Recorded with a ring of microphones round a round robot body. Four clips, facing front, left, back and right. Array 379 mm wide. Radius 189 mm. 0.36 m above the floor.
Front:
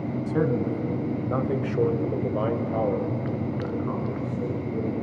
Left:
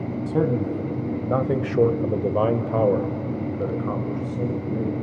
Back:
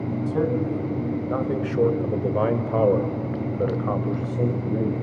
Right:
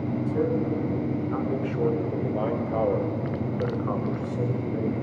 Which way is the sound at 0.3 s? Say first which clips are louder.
Left 4 dB, back 1 dB; 70° left.